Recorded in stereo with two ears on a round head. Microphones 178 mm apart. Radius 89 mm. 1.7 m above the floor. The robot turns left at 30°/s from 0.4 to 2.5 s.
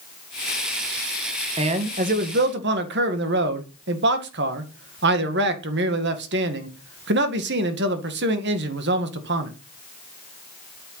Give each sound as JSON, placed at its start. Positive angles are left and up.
{"t": 1.6, "sound": "a man speaking", "side_deg": -25, "distance_m": 2.0}